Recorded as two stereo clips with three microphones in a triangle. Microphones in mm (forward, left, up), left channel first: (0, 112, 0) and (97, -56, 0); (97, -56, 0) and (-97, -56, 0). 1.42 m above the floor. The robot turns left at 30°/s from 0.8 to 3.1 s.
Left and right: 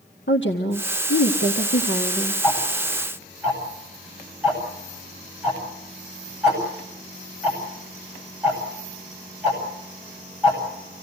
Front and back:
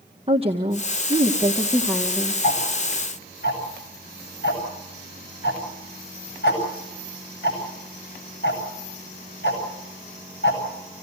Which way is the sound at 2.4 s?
35° left.